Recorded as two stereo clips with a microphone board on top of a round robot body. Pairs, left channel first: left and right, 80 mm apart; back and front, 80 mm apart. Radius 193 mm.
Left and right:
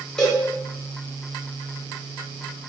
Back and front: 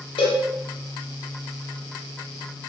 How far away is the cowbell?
About 0.9 m.